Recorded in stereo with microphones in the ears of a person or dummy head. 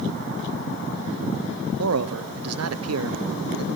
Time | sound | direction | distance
1.8 | a man speaking | 80° right | 1.0 m